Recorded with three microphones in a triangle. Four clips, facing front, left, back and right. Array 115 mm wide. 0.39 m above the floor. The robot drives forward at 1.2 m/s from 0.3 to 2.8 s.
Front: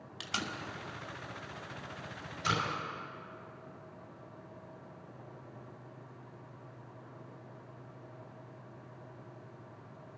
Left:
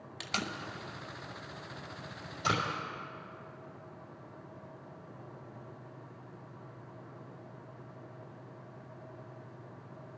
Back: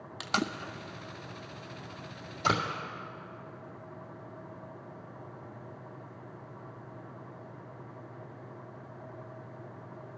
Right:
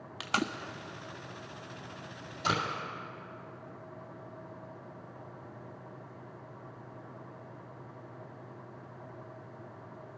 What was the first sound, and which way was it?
Tape being pulled, 130° right.